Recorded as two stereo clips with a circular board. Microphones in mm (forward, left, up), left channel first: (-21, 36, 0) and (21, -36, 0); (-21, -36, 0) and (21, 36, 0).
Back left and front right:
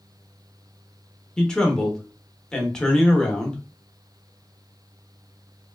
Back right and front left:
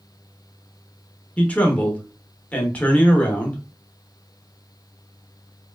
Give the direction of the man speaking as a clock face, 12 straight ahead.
6 o'clock.